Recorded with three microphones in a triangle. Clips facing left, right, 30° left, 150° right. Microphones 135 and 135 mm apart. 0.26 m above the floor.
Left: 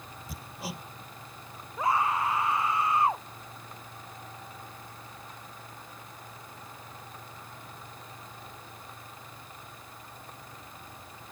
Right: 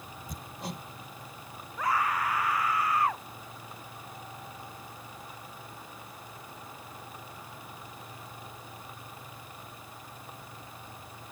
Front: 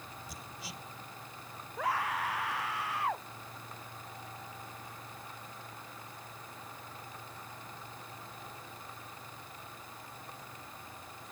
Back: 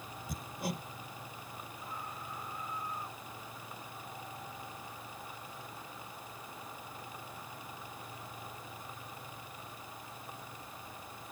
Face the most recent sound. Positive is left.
turn(degrees=25)